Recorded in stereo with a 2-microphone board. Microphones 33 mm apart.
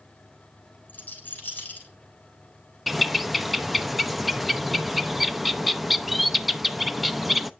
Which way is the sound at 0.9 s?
65° left (ahead or behind).